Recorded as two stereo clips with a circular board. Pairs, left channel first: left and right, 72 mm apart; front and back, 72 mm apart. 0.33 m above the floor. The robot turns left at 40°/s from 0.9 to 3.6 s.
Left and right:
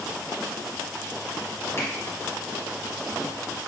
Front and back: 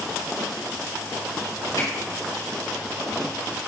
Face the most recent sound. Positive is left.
turn(degrees=-35)